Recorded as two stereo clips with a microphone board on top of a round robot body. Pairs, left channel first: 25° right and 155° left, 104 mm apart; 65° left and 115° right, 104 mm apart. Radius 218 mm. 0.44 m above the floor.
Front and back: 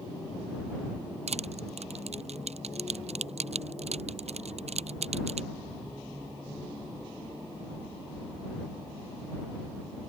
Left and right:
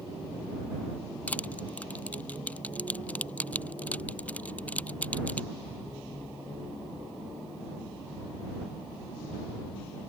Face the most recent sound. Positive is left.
turn(degrees=145)